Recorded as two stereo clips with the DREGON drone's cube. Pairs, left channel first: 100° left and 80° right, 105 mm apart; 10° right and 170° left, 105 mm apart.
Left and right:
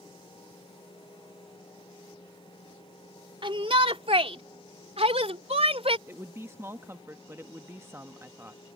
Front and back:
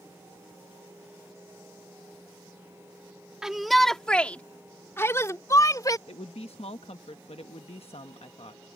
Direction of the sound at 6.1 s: 15° right.